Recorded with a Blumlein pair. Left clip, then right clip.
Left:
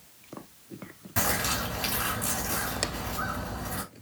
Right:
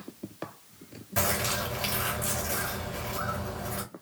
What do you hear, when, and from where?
1.2 s a bird: straight ahead, 1.8 m